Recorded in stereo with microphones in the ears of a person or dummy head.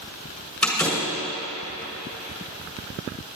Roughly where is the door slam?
Centre.